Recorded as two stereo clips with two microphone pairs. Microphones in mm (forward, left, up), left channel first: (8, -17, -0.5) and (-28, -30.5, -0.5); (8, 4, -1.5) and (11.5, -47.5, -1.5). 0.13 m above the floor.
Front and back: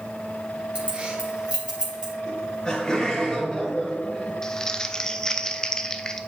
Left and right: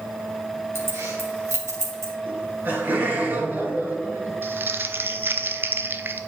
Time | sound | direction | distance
0.8 | keys jangling | 105° right | 2.0 m
2.3 | laughter | 50° right | 2.5 m
4.4 | crumpling | 50° right | 0.6 m